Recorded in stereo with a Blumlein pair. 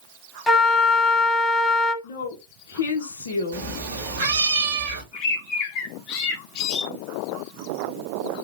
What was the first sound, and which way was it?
A flute, 10° left.